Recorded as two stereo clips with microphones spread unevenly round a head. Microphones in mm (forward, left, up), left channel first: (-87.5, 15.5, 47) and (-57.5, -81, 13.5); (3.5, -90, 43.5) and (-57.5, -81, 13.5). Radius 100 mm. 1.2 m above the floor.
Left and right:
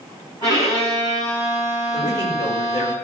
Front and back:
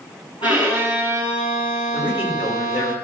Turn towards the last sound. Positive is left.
turn(degrees=50)